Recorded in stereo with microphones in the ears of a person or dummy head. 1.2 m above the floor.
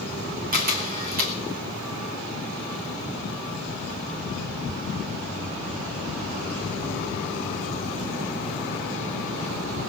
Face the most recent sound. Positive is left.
turn(degrees=-50)  # may be behind; listen again after turning